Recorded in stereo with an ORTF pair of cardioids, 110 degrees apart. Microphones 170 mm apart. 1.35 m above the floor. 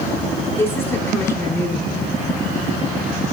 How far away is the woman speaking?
About 4 m.